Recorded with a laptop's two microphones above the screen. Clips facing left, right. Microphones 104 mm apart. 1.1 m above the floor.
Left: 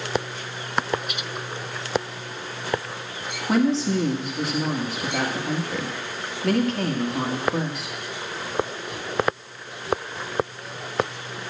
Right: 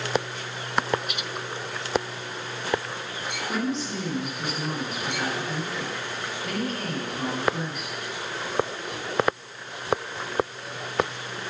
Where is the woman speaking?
85° left, 1.7 m.